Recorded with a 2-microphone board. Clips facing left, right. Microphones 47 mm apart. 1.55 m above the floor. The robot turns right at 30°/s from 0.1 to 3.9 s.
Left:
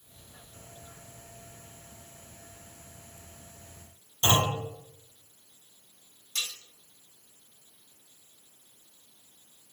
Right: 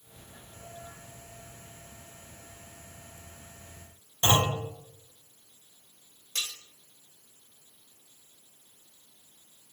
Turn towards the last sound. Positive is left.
turn(degrees=-50)  # may be behind; listen again after turning